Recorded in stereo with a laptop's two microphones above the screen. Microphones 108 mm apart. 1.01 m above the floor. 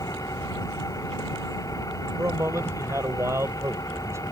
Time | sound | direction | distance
0.0 | an engine running | 30° left (ahead or behind) | ?
2.2 | a man speaking | 25° right (ahead or behind) | ?